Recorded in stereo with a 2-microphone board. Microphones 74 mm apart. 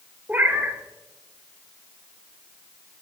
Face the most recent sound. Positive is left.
turn(degrees=-25)  # may be behind; listen again after turning